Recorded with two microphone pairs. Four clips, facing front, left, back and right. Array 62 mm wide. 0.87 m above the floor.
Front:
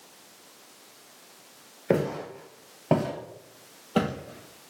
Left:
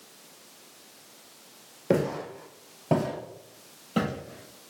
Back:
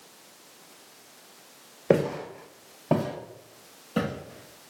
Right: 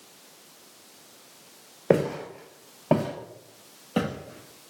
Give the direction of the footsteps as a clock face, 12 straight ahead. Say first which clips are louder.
Right 3 dB, back 2 dB; 4 o'clock.